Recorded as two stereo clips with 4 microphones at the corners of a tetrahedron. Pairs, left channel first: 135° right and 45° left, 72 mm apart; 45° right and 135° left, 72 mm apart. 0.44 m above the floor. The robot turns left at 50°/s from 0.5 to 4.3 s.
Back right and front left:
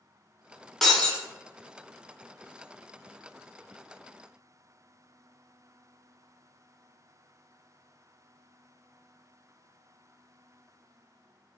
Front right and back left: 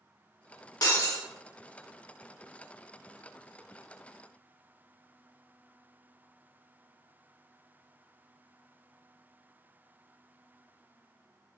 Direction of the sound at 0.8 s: 50° right.